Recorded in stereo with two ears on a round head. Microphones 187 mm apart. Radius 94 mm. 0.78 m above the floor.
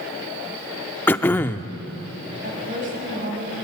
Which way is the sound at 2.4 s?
40° right (ahead or behind).